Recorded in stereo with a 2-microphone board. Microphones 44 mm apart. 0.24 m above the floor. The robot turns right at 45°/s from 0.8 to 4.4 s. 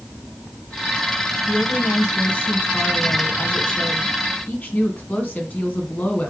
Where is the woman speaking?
5° right, 2.5 m; by 6.3 s 125° left, 2.5 m.